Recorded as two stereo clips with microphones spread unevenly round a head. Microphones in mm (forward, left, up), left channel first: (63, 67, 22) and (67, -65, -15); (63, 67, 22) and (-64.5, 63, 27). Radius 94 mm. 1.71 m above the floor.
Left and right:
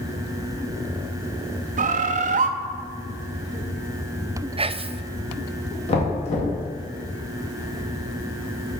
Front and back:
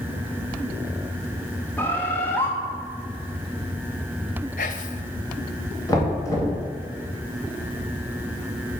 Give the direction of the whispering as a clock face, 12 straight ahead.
1 o'clock.